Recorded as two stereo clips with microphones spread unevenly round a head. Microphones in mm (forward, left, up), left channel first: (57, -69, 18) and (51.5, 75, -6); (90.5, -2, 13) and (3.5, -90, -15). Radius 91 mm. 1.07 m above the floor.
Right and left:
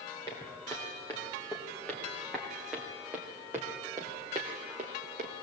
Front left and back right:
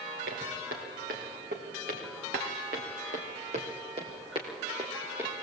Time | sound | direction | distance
0.3 | footsteps | 155° right | 4 m